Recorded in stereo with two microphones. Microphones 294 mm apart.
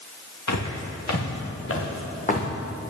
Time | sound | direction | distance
0.5 | footsteps | 75° left (ahead or behind) | 2.5 m